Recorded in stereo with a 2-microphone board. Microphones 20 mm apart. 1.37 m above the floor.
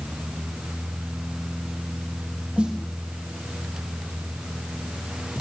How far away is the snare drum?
About 5 m.